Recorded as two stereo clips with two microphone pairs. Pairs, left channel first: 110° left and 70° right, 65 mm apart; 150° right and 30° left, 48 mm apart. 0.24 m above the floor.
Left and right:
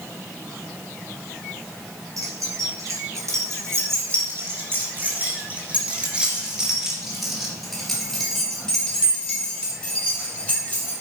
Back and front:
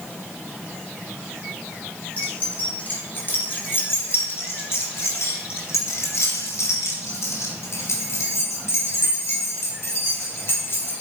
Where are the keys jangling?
90° right, 2.5 m; by 10.9 s 170° left, 4 m.